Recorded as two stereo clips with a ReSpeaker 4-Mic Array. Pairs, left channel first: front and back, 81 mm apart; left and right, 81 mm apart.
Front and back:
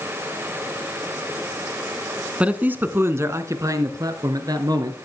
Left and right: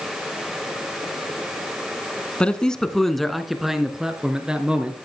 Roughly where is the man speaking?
Behind left.